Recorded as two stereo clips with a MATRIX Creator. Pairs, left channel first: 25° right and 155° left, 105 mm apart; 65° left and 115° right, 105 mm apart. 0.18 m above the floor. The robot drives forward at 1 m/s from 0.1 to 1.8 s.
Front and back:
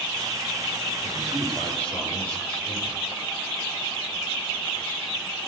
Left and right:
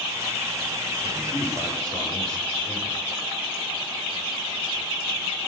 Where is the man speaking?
55° left, 7.5 m; by 3.0 s 60° left, 7.5 m.